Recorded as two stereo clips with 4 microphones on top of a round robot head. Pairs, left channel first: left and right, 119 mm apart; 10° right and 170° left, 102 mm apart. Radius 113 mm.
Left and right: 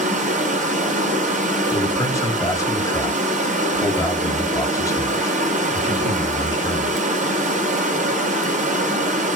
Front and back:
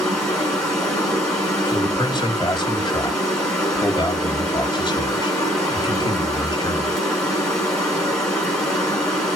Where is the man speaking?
25° left, 2 m.